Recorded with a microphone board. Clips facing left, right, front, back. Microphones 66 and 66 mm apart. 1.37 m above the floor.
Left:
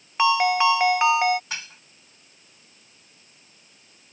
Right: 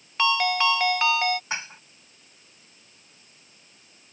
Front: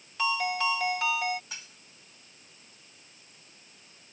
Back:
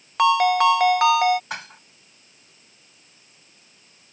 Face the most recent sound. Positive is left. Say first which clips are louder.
# right 3 dB, back 14 dB
turn(degrees=-155)